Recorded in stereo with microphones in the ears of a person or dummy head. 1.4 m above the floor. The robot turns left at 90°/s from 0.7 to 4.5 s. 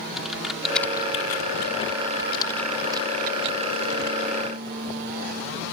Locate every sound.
0.2 s typing on a keyboard: centre (ahead or behind); by 4.4 s 30° right (ahead or behind)